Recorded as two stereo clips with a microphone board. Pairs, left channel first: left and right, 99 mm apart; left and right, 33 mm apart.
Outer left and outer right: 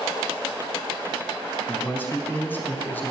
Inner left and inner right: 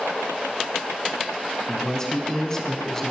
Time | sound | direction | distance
1.7 | a man speaking | 20° left (ahead or behind) | 1.2 m